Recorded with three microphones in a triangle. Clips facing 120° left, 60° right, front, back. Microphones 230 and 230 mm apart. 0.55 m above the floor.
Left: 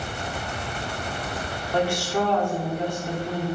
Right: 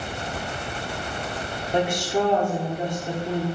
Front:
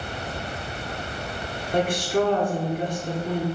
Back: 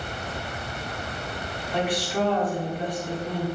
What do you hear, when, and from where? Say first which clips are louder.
1.7 s a woman speaking: right 1 dB, front 4 dB; 5° left, 1.2 m